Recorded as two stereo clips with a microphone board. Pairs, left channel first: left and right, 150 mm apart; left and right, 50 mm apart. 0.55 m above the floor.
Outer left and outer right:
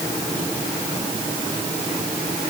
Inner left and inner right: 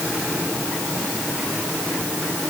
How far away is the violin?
No violin in this recording.